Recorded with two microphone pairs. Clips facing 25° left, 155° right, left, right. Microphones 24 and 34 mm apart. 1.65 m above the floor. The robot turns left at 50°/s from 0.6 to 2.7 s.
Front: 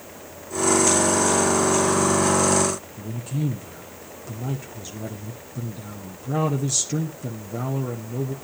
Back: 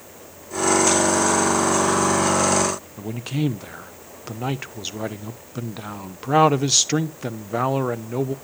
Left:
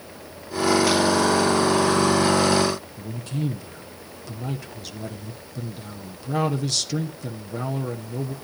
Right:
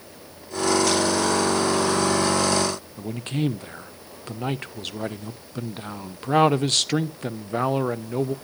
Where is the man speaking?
125° right, 0.6 m.